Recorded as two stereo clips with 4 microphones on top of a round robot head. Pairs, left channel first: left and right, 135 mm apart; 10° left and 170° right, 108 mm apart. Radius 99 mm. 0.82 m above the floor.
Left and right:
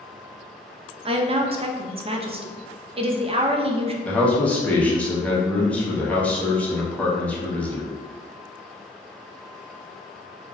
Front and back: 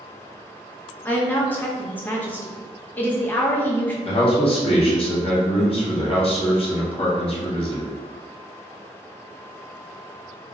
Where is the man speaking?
10° left, 1.1 m.